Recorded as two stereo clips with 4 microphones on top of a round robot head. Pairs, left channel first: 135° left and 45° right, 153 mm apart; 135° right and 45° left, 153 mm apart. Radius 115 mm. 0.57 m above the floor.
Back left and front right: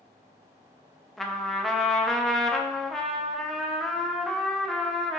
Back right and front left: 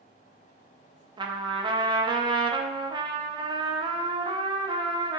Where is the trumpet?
50° left, 0.6 m.